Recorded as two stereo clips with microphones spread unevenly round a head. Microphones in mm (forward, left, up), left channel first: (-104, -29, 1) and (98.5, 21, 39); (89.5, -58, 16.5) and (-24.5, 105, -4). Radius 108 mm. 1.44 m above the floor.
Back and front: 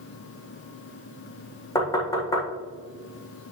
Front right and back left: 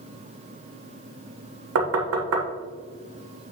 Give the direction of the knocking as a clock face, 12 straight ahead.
8 o'clock.